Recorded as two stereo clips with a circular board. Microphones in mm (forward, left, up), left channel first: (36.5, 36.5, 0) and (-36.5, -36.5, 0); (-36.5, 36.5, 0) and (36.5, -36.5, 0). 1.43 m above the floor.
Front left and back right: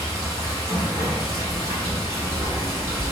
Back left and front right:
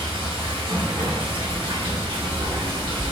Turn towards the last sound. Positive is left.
turn(degrees=-80)